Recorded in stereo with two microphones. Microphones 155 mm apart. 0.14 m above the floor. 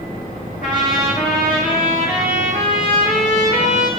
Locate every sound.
0.6 s a trumpet: 65° left (ahead or behind), 9 m